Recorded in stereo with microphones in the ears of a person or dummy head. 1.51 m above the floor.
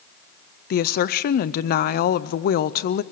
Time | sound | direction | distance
0.7 | a woman speaking | 45° left (ahead or behind) | 0.5 m